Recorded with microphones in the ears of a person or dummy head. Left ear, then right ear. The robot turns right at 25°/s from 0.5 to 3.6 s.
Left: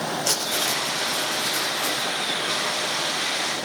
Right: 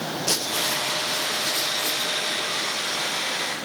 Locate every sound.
0.3 s writing: 115° left, 5 m; by 2.1 s 160° left, 5 m